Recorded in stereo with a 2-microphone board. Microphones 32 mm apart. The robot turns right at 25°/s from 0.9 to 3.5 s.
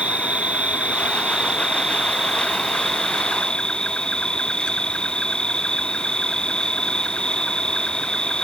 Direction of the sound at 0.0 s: 40° right.